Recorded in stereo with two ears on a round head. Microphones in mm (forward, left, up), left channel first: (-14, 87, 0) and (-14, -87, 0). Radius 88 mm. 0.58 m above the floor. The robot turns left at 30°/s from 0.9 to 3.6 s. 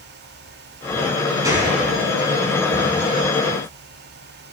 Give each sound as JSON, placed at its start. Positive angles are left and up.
{"t": 1.4, "sound": "a gunshot", "side_deg": -20, "distance_m": 4.5}